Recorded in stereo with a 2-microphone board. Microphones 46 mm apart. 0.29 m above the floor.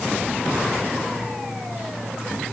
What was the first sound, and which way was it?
Only background noise.